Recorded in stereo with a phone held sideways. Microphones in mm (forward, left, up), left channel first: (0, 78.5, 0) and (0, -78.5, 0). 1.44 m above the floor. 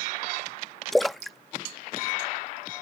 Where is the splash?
Centre (ahead or behind).